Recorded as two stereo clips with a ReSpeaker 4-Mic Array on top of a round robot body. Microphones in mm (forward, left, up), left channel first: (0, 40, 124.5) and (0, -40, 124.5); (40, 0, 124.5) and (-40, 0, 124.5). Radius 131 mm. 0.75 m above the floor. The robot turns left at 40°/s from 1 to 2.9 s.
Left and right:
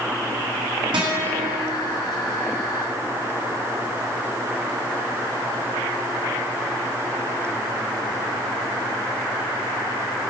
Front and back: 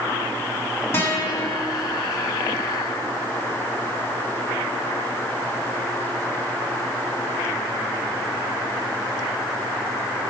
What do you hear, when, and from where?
0.9 s a guitar: 60° right, 1.8 m; by 1.5 s 80° right, 1.8 m